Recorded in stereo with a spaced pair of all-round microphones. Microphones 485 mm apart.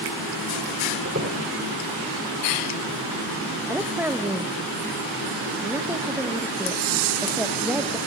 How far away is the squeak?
About 2.5 m.